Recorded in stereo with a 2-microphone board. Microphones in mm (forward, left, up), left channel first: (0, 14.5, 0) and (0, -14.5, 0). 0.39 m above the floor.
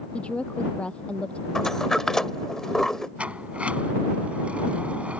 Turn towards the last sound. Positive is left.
turn(degrees=-50)  # may be behind; listen again after turning